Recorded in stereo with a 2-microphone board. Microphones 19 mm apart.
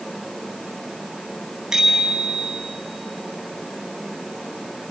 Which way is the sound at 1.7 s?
35° right (ahead or behind).